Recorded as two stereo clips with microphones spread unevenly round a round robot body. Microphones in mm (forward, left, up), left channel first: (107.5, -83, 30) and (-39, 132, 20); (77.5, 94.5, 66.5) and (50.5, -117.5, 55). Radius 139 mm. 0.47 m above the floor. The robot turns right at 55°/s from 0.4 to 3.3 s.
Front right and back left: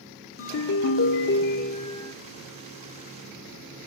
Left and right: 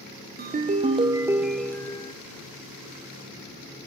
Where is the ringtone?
70° right, 0.7 m; by 2.1 s 25° left, 0.7 m.